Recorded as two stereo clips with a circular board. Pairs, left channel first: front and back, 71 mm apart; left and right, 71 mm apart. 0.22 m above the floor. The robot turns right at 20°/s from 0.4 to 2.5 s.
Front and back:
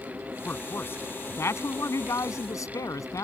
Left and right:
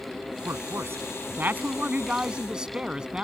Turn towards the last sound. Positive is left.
turn(degrees=-15)